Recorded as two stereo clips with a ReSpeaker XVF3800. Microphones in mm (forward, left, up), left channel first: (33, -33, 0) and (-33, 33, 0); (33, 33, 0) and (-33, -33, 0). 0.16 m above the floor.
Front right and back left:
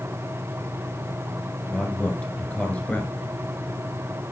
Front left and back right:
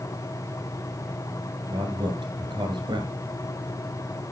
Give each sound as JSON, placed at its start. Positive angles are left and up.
{"t": 1.7, "sound": "a man speaking", "azimuth_deg": -120, "distance_m": 2.5}